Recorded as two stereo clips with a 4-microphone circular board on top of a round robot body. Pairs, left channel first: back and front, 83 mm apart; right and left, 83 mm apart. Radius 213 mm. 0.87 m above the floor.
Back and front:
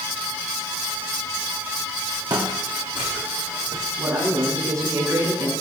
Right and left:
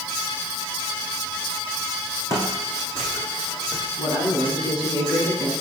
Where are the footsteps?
35° right, 4.5 m; by 3.9 s 25° right, 4 m.